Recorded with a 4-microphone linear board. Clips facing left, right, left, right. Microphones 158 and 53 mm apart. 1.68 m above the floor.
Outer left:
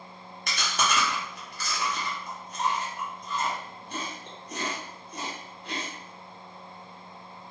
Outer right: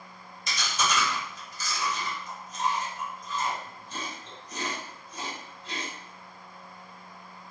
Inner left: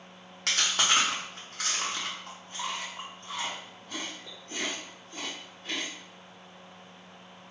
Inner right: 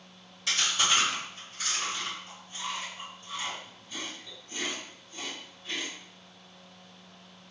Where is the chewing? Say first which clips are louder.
Outer left 1 dB, inner left 1 dB; 70° left (ahead or behind), 1.1 m.